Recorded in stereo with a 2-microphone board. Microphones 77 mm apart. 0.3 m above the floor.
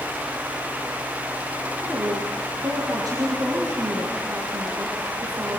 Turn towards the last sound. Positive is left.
turn(degrees=-55)  # may be behind; listen again after turning